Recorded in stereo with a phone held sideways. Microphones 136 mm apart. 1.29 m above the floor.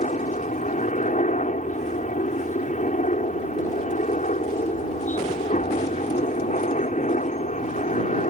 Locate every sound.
0.0 s a helicopter: 65° left (ahead or behind)